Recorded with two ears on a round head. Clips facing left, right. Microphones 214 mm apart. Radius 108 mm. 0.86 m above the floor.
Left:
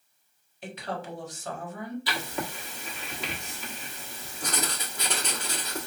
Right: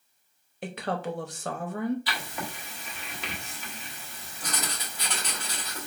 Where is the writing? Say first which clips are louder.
Left 3 dB; 85° left, 1.3 m.